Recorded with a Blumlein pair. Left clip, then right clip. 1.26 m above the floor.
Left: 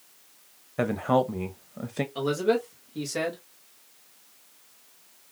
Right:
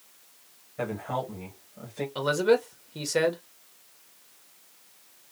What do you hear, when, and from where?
0.8 s a woman speaking: 60° left, 1.0 m
2.1 s a man speaking: 15° right, 1.8 m